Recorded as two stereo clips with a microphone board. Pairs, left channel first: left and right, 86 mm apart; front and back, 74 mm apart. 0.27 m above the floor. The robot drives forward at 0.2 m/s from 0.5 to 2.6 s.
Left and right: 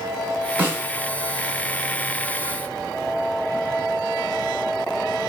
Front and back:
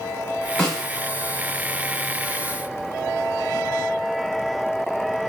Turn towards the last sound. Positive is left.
turn(degrees=-110)